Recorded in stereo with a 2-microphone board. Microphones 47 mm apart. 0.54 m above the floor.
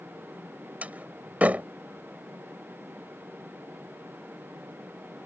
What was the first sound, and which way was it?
A door slam, 30° right (ahead or behind).